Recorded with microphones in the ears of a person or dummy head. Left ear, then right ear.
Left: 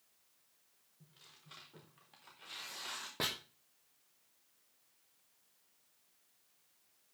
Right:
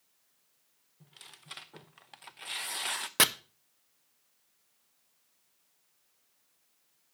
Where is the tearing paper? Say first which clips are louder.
Right 9 dB; 45° right (ahead or behind), 0.8 m.